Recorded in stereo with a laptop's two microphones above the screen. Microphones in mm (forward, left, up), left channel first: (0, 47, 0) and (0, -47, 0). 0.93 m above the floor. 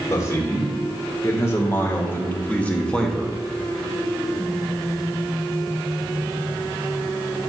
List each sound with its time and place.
0.1 s a man speaking: 35° left (ahead or behind), 3 m; by 3.4 s centre (ahead or behind), 1.1 m